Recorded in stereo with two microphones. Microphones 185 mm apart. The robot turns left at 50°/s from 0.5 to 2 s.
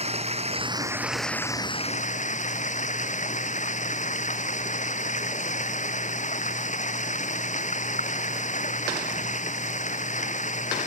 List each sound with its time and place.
0.0 s running water: 145° right; by 10.9 s 140° left